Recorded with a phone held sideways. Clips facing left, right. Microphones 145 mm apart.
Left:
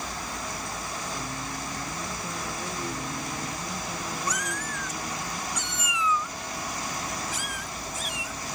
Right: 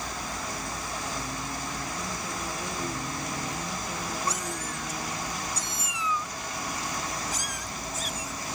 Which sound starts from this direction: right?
A cat meowing, at 4.3 s.